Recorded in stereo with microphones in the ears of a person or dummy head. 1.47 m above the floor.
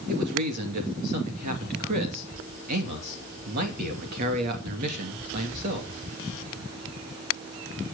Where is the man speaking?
50° right (ahead or behind), 2.5 m.